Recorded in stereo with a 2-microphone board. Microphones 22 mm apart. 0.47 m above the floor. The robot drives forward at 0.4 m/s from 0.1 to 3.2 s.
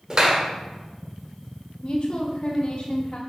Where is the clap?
30° right (ahead or behind), 1.5 m.